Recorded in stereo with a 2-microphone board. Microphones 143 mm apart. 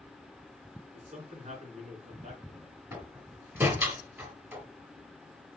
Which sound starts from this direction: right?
A man speaking, at 0.9 s.